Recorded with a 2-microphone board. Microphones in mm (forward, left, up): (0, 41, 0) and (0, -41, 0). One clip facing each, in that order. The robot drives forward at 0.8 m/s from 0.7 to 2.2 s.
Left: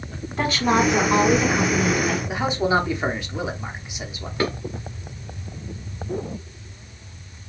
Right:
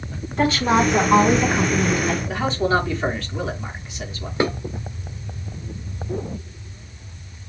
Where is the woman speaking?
Centre (ahead or behind), 1.7 m.